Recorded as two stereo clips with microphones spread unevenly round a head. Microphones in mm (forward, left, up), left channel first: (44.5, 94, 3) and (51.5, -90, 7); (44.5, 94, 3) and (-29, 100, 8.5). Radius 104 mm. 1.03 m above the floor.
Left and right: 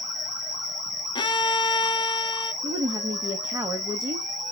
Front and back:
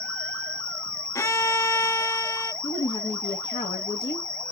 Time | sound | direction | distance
0.0 | an insect | 40° right | 4.5 m
1.1 | a violin | 35° left | 0.8 m
2.6 | a woman speaking | 15° right | 1.2 m